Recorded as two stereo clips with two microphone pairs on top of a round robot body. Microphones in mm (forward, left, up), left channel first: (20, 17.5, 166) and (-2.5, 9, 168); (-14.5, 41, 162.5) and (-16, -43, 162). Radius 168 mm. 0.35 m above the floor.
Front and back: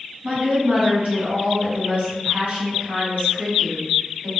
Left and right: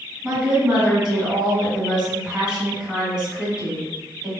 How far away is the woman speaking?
About 2.0 m.